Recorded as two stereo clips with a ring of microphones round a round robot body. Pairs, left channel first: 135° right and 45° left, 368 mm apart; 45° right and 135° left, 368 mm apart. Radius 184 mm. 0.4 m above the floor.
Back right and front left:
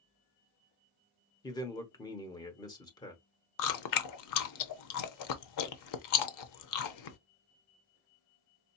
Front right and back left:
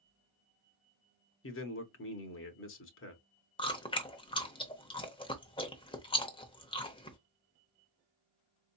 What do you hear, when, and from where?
1.4 s a man speaking: 65° right, 0.9 m
3.6 s chewing: 120° right, 0.8 m